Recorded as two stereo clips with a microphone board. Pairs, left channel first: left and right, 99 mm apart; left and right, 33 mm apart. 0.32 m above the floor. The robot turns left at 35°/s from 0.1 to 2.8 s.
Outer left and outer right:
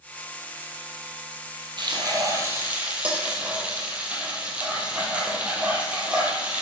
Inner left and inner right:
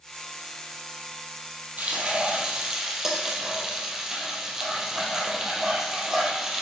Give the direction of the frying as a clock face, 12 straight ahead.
4 o'clock.